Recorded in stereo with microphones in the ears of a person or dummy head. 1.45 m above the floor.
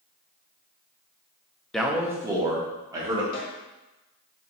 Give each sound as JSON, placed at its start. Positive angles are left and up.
{"t": 1.7, "sound": "a man speaking", "side_deg": -5, "distance_m": 0.5}
{"t": 3.3, "sound": "a snare drum", "side_deg": 65, "distance_m": 1.8}